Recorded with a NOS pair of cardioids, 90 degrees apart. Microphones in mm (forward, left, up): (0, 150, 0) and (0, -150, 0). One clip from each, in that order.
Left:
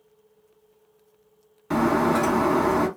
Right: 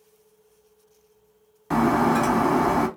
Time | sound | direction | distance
1.7 | breaking glass | 5° right | 1.4 m